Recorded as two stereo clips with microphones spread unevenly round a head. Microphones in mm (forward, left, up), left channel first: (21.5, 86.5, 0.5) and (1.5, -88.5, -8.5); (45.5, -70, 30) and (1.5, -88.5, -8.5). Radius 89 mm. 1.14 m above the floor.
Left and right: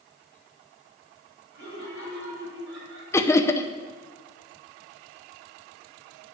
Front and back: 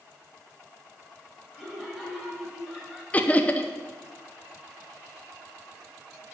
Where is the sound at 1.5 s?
65° right, 6.5 m; by 3.0 s 75° right, 6.5 m.